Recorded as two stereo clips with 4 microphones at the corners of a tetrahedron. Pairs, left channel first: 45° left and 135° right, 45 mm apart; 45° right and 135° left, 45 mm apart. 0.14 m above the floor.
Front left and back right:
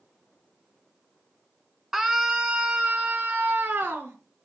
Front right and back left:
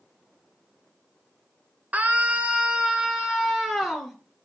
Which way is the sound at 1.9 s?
145° left.